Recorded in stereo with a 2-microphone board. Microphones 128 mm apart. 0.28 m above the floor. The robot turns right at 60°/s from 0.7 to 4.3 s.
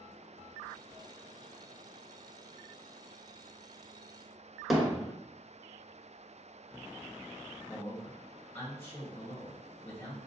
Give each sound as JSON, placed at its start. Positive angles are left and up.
{"t": 4.7, "sound": "hammering", "side_deg": 0, "distance_m": 0.9}
{"t": 7.7, "sound": "a man speaking", "side_deg": 20, "distance_m": 1.4}